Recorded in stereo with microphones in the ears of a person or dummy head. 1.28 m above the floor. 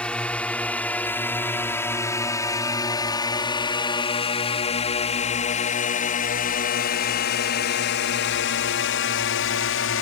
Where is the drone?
5° left (ahead or behind); by 10.0 s 65° left (ahead or behind).